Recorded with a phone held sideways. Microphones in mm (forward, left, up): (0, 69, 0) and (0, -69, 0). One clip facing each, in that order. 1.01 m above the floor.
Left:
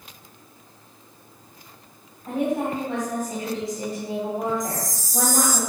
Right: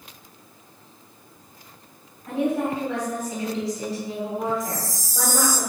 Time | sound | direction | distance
2.3 | a woman speaking | 20° left (ahead or behind) | 3.5 m
4.6 | a chime | 15° left (ahead or behind) | 0.8 m